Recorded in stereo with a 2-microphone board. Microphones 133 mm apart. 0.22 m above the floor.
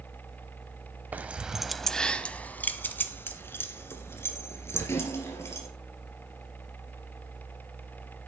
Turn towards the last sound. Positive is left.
turn(degrees=20)  # may be behind; listen again after turning